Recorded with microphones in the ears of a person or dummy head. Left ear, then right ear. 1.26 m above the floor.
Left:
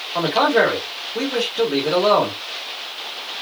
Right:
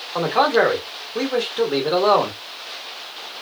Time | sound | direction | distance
0.1 | a man speaking | 20° right (ahead or behind) | 1.0 m